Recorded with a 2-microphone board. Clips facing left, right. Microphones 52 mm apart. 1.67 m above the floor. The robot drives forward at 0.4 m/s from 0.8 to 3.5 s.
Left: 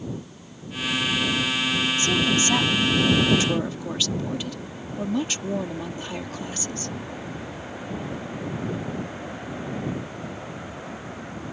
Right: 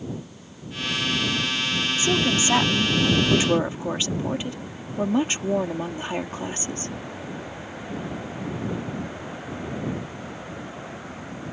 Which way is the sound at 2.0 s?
25° right (ahead or behind).